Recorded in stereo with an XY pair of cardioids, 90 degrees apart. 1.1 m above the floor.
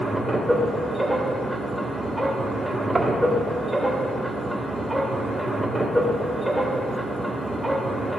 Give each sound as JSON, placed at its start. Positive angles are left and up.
{"t": 0.0, "sound": "a machine running", "azimuth_deg": 0, "distance_m": 2.0}
{"t": 3.0, "sound": "knocking", "azimuth_deg": -25, "distance_m": 1.3}